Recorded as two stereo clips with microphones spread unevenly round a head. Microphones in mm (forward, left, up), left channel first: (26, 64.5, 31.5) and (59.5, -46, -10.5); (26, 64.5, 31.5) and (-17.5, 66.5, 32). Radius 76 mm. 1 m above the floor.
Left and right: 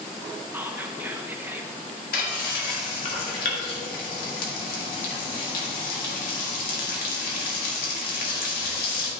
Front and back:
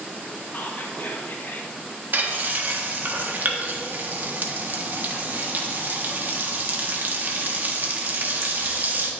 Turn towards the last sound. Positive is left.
turn(degrees=135)